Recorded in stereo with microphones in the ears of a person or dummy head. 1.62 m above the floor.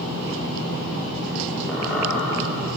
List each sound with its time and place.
1.7 s a squeak: centre (ahead or behind), 5 m